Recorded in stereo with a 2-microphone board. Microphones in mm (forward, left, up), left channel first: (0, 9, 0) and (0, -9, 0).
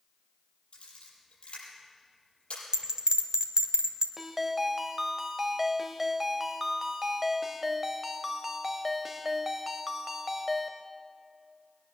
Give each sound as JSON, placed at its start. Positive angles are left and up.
{"t": 0.7, "sound": "a camera shutter", "side_deg": 85, "distance_m": 6.5}
{"t": 2.7, "sound": "a bell", "side_deg": -45, "distance_m": 1.2}
{"t": 4.2, "sound": "a ringtone", "side_deg": -15, "distance_m": 1.0}